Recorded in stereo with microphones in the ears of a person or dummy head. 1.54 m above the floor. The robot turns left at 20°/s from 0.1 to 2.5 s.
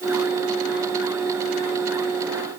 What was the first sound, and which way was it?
Only background noise.